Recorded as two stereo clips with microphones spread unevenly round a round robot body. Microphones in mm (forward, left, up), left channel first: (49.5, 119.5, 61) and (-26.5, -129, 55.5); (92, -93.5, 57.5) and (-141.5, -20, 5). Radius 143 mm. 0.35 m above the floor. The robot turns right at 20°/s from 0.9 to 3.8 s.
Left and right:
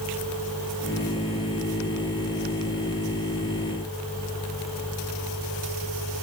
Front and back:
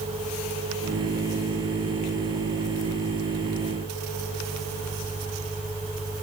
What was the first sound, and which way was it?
Only background noise.